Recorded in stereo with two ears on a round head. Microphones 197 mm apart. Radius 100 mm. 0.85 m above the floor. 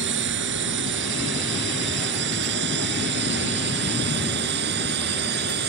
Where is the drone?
50° right (ahead or behind); by 5.7 s 45° right (ahead or behind).